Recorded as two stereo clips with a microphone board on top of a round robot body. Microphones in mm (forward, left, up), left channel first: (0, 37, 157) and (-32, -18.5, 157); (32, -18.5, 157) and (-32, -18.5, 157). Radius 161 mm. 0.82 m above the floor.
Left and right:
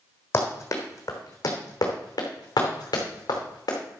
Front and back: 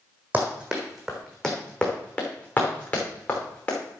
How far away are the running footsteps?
About 1.7 m.